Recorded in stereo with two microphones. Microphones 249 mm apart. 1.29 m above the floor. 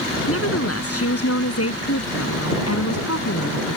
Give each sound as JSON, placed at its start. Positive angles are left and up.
{"t": 0.3, "sound": "a woman speaking", "side_deg": 65}